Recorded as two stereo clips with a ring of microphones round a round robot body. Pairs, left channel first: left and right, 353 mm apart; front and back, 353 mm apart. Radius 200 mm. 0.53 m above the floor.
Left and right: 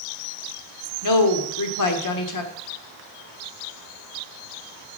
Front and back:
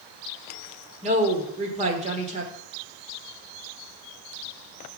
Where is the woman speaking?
110° left, 1.7 m.